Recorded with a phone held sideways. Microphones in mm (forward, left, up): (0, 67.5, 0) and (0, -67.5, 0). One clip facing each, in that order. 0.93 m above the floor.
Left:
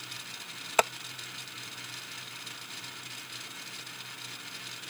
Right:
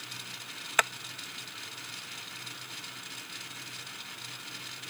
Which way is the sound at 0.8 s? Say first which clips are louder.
Left 5 dB; 30° left (ahead or behind).